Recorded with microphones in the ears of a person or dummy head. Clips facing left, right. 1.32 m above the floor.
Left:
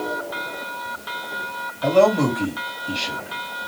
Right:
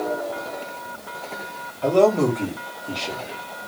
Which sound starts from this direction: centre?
A man speaking, at 1.8 s.